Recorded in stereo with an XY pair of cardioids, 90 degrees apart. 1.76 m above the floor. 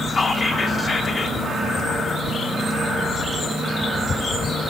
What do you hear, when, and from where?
0.1 s whispering: 30° left, 4.5 m